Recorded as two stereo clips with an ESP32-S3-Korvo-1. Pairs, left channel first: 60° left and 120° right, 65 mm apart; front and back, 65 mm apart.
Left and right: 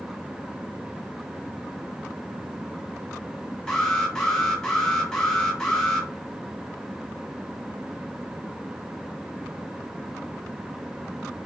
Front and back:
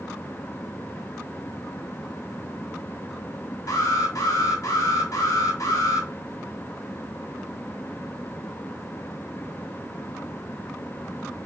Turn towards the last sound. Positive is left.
turn(degrees=-20)